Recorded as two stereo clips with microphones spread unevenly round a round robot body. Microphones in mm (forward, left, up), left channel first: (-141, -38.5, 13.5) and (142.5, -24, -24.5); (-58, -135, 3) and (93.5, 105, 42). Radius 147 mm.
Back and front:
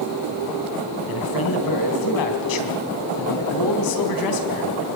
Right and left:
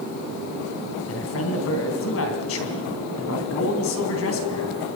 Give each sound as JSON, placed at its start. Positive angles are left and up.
{"t": 1.1, "sound": "a man speaking", "azimuth_deg": -160, "distance_m": 3.5}